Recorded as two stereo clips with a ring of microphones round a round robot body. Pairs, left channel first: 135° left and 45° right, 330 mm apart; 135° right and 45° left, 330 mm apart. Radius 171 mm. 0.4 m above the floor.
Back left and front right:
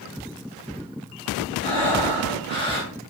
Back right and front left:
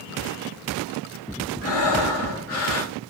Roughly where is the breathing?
Right.